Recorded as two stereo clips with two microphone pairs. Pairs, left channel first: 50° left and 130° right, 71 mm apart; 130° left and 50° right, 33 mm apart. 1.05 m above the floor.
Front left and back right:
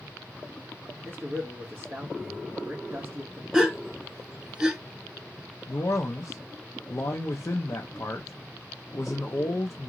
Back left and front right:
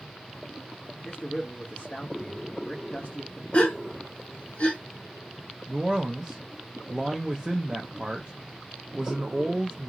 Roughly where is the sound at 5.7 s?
Ahead.